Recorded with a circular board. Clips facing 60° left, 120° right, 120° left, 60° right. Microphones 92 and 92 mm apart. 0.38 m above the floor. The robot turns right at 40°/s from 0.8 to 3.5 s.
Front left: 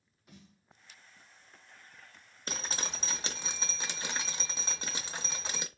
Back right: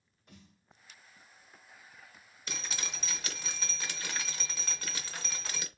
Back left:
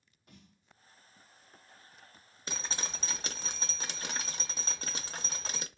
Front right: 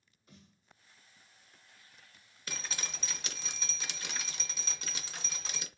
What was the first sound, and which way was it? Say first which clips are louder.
A snare drum: front left 1 dB, back left 1 dB; 150° left.